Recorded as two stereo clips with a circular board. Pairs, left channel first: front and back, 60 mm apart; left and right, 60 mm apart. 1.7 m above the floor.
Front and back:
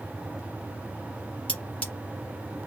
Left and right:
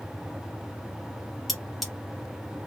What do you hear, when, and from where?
1.5 s cutlery clinking: straight ahead, 1.0 m